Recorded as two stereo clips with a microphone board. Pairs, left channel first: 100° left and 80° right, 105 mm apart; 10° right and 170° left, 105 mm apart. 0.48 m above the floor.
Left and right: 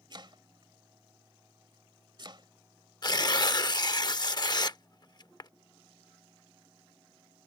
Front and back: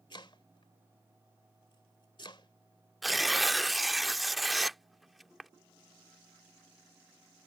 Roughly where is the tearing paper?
Left.